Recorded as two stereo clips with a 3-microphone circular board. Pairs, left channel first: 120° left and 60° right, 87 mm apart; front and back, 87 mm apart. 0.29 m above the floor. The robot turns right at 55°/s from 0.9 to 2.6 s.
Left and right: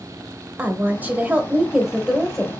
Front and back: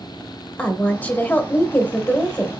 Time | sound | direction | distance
0.6 | a woman speaking | 40° right | 0.9 m